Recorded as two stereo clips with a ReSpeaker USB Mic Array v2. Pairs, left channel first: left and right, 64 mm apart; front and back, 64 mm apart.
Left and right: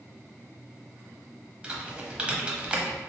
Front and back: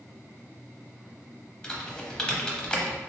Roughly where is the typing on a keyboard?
Ahead right.